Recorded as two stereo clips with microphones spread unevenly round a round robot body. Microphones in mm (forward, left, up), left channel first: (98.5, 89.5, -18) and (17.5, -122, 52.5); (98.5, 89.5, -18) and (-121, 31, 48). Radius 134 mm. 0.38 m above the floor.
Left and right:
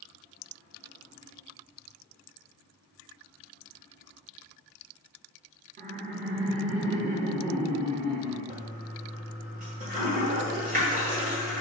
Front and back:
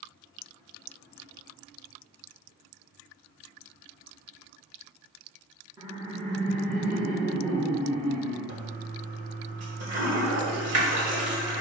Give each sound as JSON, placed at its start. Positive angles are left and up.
{"t": 5.8, "sound": "laughter", "azimuth_deg": -70, "distance_m": 1.2}
{"t": 8.5, "sound": "a toilet flushing", "azimuth_deg": -175, "distance_m": 2.5}